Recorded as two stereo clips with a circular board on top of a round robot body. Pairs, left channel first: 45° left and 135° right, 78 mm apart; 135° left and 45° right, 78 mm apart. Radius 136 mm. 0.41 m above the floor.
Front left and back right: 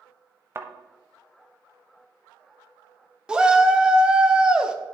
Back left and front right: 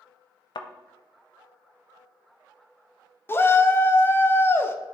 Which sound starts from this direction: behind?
A thud, at 0.6 s.